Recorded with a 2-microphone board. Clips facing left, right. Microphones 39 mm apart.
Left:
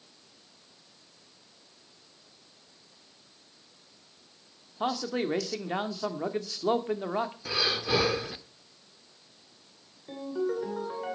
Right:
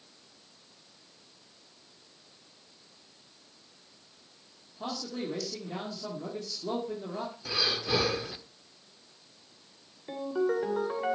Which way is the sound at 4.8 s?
85° left.